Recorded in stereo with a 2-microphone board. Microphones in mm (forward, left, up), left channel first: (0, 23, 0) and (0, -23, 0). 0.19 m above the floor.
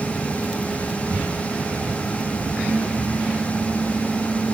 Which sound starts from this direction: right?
Breathing, at 1.1 s.